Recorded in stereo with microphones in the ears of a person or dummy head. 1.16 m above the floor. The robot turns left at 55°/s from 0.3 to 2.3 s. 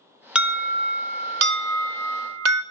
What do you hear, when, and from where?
0.3 s an alarm: 5° right, 0.6 m; by 2.6 s 115° right, 0.6 m